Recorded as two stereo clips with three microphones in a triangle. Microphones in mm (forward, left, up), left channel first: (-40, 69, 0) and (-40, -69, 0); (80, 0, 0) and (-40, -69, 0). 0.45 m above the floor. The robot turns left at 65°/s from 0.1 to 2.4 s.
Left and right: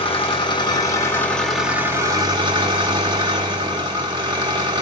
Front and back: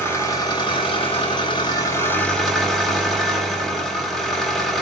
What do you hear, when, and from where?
0.0 s an engine running: 95° left, 1.1 m; by 4.8 s 55° right, 1.1 m